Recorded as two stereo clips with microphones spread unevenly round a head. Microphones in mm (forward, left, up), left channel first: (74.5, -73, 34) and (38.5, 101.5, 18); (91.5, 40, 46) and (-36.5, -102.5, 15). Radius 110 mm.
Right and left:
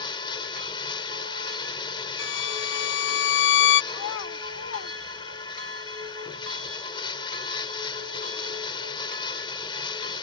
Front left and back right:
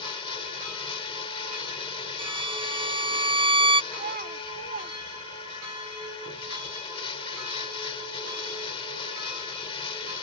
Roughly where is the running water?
Ahead.